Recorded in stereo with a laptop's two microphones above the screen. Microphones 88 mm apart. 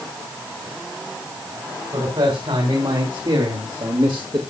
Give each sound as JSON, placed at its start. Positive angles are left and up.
{"t": 1.9, "sound": "a man speaking", "side_deg": -75, "distance_m": 3.5}